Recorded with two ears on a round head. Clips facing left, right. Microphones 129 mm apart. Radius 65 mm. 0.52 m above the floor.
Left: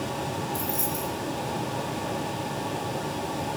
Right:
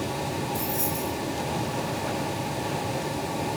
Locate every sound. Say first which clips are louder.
0.5 s keys jangling: right 1 dB; 25° left (ahead or behind), 9 m